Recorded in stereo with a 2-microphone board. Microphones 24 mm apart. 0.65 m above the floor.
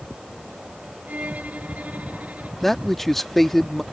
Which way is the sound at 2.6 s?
10° left (ahead or behind).